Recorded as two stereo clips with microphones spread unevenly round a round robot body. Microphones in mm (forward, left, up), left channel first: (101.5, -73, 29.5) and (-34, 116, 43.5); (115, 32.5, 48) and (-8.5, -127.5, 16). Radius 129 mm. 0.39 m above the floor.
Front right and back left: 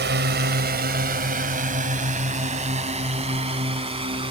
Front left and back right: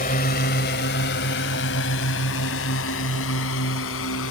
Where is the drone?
100° left; by 4.3 s 60° left.